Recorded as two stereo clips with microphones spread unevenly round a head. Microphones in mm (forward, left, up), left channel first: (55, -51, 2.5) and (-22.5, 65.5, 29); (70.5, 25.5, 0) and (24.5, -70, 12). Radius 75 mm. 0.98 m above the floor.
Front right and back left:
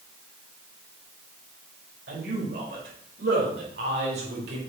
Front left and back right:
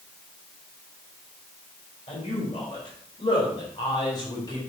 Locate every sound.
2.1 s a man speaking: 120° left, 4.5 m; by 4.6 s 130° left, 3 m